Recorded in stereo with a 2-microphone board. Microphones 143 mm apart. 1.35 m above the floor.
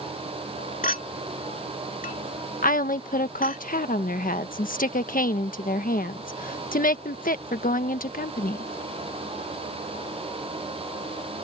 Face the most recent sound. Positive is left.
turn(degrees=80)